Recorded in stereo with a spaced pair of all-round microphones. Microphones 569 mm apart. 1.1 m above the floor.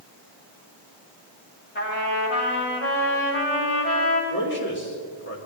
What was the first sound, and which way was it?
A trumpet, 20° left (ahead or behind).